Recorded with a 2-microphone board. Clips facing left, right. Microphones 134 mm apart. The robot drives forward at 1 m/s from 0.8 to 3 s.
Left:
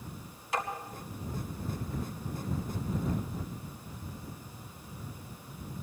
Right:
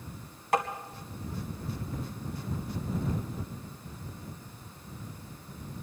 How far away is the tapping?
About 2.0 m.